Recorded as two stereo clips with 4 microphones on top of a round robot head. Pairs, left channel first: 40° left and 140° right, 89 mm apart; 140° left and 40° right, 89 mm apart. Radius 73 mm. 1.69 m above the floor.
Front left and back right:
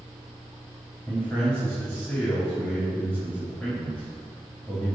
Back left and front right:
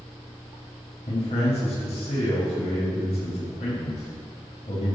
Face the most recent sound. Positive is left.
turn(degrees=120)